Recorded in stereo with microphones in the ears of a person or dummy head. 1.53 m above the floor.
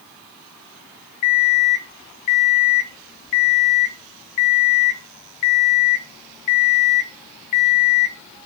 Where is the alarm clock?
25° left (ahead or behind), 0.6 m.